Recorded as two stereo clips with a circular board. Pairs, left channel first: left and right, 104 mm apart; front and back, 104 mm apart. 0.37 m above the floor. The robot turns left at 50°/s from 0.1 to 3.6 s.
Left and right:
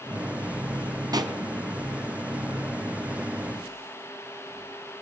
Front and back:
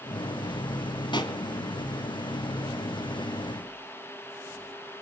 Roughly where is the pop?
Ahead right.